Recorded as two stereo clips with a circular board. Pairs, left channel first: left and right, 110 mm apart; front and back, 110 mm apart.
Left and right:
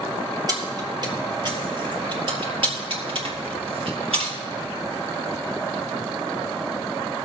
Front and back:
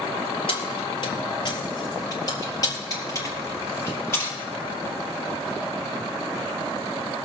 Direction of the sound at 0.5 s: 35° right.